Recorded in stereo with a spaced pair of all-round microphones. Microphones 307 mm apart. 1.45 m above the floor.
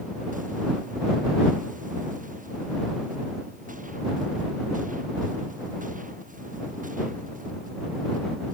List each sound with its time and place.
Only background noise.